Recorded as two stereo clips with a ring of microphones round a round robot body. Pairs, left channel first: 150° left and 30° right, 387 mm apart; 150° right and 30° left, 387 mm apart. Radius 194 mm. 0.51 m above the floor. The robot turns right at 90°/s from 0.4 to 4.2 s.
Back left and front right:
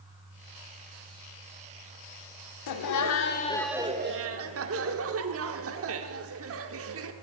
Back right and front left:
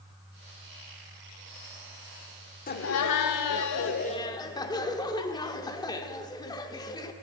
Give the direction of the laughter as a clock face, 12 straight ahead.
7 o'clock.